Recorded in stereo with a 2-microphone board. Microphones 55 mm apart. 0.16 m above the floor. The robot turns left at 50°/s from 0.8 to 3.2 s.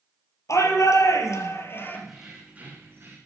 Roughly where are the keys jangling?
Ahead.